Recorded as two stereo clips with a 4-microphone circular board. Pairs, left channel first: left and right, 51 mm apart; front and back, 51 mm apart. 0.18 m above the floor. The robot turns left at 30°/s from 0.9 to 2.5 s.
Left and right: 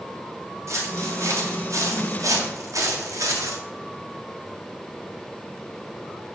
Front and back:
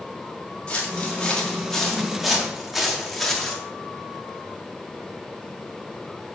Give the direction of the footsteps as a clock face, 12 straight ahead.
2 o'clock.